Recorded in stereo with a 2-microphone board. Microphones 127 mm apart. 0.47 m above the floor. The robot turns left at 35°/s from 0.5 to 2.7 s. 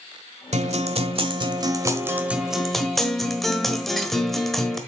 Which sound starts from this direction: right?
A guitar, at 0.5 s.